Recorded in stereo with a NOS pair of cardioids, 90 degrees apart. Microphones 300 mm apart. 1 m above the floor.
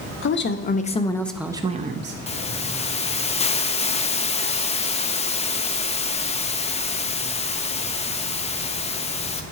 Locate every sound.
0.2 s a woman speaking: 40° left, 1.0 m; by 2.2 s 40° right, 0.7 m
2.3 s a hiss: 20° left, 0.6 m